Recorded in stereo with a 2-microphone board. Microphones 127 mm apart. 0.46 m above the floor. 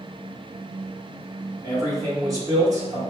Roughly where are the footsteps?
No footsteps in this recording.